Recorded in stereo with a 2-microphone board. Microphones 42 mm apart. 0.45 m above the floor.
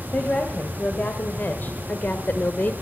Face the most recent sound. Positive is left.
turn(degrees=45)  # may be behind; listen again after turning